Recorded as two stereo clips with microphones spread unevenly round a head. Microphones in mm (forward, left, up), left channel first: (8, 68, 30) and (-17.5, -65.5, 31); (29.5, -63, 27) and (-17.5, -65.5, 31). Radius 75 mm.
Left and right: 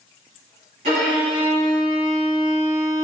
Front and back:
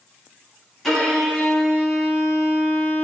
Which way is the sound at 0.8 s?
80° right.